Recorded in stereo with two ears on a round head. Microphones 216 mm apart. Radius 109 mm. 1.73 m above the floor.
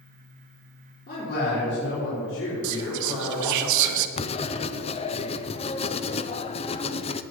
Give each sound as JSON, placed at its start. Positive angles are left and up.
{"t": 1.1, "sound": "a man speaking", "side_deg": 40, "distance_m": 5.5}
{"t": 2.6, "sound": "whispering", "side_deg": -85, "distance_m": 1.0}
{"t": 4.2, "sound": "writing", "side_deg": 25, "distance_m": 0.5}